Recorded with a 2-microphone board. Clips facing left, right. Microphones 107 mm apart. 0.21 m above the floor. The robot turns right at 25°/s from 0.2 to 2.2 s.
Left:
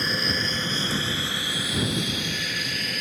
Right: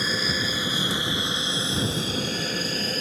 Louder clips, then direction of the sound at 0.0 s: Even; 5° right (ahead or behind).